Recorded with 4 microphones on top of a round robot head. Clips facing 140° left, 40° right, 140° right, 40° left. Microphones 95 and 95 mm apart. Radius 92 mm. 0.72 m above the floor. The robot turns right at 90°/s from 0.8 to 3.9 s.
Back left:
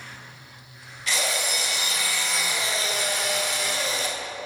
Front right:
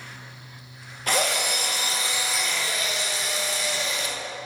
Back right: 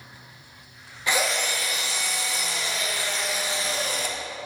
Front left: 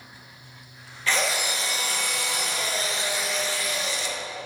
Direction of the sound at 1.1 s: 70° right.